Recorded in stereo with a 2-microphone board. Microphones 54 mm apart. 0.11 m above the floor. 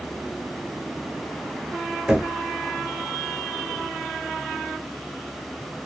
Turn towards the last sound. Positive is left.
turn(degrees=-5)  # may be behind; listen again after turning